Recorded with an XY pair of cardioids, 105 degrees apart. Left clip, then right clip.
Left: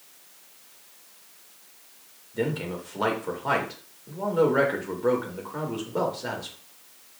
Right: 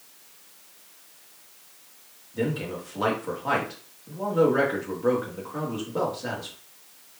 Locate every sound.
2.3 s a man speaking: 10° left, 1.8 m